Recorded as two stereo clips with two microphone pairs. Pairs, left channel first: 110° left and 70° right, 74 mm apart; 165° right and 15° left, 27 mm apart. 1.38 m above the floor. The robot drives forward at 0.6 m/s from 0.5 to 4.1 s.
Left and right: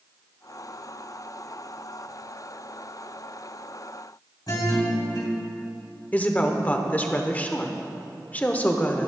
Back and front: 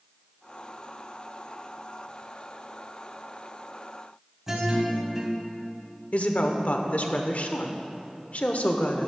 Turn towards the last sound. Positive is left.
turn(degrees=175)